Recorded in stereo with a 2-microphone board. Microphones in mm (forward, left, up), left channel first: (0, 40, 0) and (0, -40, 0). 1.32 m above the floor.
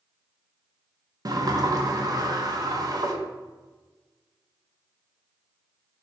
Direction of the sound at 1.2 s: 50° right (ahead or behind).